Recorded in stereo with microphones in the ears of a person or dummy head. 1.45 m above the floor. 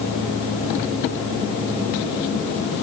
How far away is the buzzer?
I don't hear a buzzer.